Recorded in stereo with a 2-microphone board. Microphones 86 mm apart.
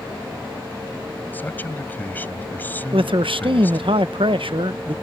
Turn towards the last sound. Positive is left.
turn(degrees=-80)